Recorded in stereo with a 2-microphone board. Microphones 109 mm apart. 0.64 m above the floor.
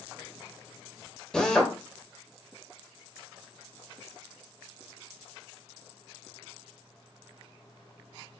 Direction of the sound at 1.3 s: 5° left (ahead or behind).